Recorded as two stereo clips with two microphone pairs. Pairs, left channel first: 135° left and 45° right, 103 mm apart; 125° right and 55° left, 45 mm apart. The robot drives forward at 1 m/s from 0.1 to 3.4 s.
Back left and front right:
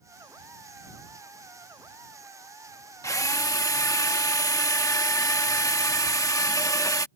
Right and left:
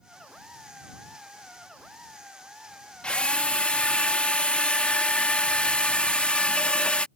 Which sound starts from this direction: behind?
A drill, at 3.0 s.